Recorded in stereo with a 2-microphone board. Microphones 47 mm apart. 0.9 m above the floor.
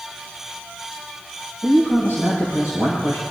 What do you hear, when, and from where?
1.6 s a man speaking: 80° left, 5 m